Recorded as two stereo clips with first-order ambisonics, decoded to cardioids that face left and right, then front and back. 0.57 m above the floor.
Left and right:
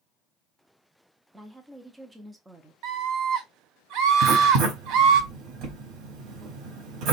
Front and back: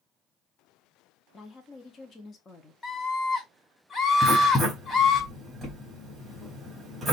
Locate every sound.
1.3 s a woman speaking: 25° right, 0.7 m
2.8 s a scream: 65° right, 1.6 m
4.2 s writing: 100° right, 3 m